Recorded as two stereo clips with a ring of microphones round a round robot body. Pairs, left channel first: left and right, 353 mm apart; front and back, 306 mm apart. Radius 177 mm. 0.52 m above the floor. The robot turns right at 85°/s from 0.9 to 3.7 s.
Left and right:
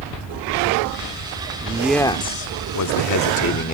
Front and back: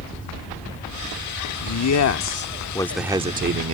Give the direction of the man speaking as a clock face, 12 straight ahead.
1 o'clock.